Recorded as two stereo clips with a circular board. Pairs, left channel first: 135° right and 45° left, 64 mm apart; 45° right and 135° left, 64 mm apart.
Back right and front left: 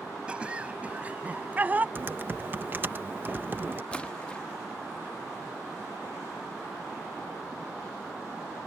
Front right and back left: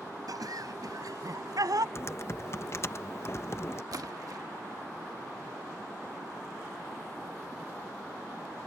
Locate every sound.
0.3 s laughter: 120° left; by 1.9 s 110° left
1.9 s typing on a keyboard: 10° right
3.9 s a splash: 155° left